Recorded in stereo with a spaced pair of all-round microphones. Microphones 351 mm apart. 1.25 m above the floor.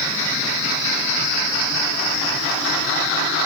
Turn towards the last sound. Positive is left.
No sound to turn to.